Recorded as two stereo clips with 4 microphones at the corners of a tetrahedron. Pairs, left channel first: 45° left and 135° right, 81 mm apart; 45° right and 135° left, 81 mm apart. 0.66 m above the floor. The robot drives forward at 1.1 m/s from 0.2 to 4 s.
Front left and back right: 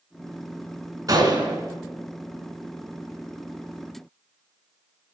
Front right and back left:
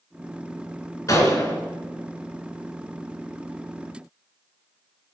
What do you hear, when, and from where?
1.1 s a gunshot: 90° right, 3 m; by 1.6 s 105° right, 3 m